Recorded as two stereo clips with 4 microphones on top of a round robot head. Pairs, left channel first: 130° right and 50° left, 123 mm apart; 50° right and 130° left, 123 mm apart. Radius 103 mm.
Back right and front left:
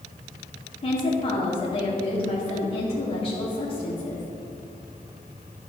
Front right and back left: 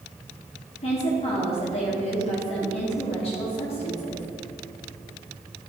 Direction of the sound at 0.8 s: 90° right.